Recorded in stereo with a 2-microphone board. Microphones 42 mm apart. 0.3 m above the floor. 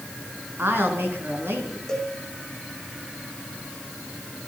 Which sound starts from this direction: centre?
A cowbell, at 1.9 s.